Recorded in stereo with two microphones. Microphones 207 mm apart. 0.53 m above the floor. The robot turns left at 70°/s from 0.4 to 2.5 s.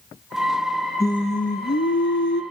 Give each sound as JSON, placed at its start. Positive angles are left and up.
{"t": 1.0, "sound": "singing", "azimuth_deg": 165, "distance_m": 1.2}